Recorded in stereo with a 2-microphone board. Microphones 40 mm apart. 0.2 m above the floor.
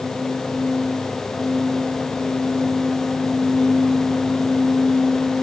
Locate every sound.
Only background noise.